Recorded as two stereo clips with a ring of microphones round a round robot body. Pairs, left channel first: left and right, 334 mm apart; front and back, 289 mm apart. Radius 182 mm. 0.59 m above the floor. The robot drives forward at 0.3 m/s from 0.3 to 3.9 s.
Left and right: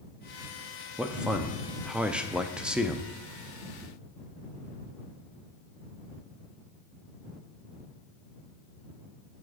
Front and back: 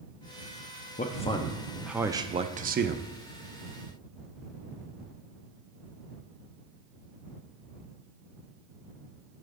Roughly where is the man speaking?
Ahead.